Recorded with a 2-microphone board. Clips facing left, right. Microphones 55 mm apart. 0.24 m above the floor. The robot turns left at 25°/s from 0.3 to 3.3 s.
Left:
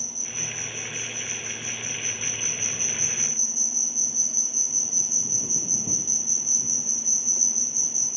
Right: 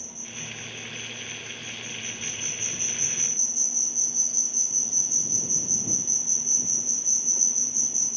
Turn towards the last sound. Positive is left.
turn(degrees=40)